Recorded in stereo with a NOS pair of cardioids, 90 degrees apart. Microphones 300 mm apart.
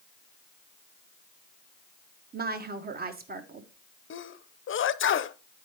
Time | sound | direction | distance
2.3 | a woman speaking | 30° right | 1.1 m
4.1 | a sneeze | 45° left | 0.7 m